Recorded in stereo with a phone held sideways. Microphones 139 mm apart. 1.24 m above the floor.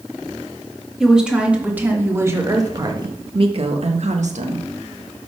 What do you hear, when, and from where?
1.0 s a woman speaking: 5° right (ahead or behind), 2 m; by 4.7 s 75° right (ahead or behind), 1.4 m